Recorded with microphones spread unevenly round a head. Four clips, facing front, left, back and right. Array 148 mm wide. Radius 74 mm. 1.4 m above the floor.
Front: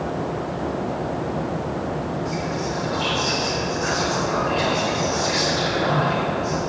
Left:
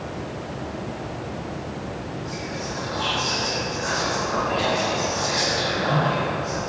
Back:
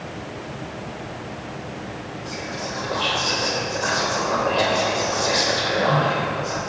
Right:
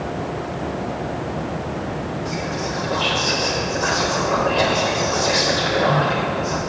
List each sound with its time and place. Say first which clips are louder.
2.2 s whispering: right 6 dB, front 5 dB; 95° right, 3 m